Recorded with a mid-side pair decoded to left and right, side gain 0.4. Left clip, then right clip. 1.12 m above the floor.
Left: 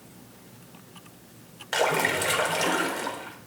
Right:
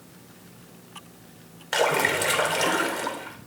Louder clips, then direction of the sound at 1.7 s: Right 2 dB; 20° right.